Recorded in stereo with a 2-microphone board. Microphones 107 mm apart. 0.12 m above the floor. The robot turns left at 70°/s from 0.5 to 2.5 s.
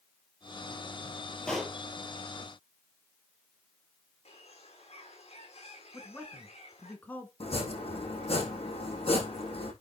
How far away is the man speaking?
About 1.6 m.